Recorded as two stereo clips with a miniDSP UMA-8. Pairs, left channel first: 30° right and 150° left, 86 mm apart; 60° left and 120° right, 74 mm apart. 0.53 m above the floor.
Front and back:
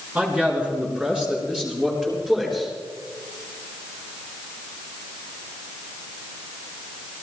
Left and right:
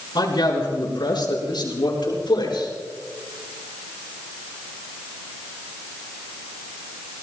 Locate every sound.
0.1 s a man speaking: 75° left, 5.5 m; by 2.7 s 65° left, 7 m